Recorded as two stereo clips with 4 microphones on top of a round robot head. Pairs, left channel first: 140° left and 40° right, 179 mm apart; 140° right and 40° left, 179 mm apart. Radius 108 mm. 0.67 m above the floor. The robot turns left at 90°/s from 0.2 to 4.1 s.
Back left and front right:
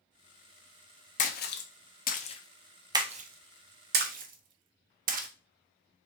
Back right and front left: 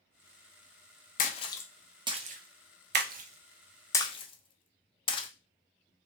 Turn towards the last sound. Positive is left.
turn(degrees=-80)